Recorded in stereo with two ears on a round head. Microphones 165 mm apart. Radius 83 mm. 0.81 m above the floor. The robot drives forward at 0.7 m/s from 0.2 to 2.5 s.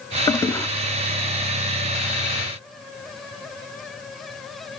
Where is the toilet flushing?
15° left (ahead or behind), 0.6 m.